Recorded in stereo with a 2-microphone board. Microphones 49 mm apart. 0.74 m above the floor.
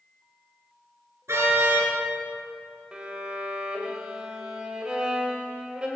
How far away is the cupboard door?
I don't hear a cupboard door.